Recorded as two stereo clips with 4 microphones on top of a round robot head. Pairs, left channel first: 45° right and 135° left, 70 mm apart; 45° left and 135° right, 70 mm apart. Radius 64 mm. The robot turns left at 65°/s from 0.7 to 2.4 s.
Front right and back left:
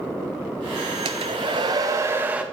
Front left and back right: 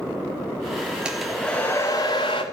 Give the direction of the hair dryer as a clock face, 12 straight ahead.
7 o'clock.